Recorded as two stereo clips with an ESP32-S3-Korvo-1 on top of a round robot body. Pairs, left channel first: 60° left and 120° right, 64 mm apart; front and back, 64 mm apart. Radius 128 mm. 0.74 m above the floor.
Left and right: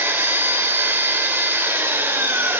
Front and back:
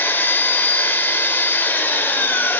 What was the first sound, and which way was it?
An engine running, 60° right.